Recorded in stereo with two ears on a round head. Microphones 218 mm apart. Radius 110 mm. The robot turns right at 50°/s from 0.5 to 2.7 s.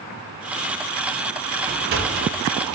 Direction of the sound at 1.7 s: 30° right (ahead or behind).